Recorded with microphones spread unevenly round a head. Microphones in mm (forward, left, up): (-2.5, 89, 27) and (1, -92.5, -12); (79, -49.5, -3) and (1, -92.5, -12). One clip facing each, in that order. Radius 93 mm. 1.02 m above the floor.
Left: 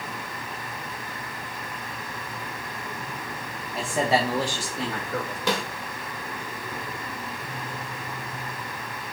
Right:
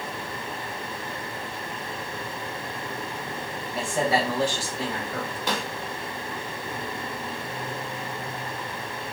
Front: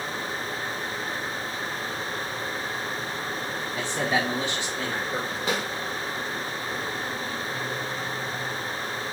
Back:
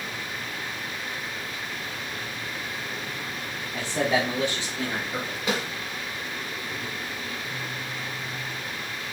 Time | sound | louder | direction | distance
3.7 | a man speaking | left 1 dB, back 2 dB | 160° right | 0.9 m
5.5 | a snare drum | left 4 dB, back 1 dB | 115° left | 1.7 m